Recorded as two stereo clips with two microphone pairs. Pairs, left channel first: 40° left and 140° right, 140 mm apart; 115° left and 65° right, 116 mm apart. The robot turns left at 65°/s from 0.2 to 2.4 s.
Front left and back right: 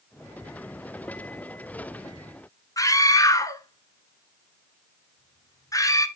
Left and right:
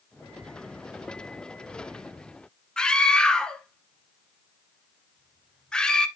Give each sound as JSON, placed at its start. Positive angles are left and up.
{"t": 2.8, "sound": "a scream", "azimuth_deg": 45, "distance_m": 1.1}